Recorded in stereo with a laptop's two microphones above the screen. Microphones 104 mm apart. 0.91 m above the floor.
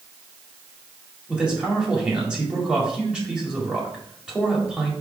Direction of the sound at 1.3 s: 5° right (ahead or behind).